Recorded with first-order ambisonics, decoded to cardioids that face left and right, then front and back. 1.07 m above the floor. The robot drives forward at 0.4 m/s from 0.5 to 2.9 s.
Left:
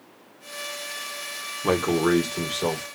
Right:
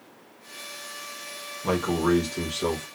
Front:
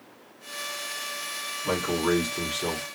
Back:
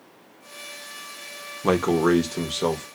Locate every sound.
1.6 s a man speaking: 160° left, 0.7 m; by 2.9 s 170° left, 1.2 m